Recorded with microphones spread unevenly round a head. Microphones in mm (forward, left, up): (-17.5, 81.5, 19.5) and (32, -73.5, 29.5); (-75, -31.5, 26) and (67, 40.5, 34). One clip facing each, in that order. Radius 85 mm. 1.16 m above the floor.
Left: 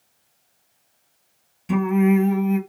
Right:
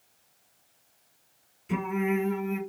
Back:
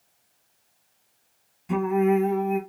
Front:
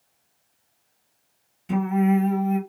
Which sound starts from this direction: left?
Singing, at 1.7 s.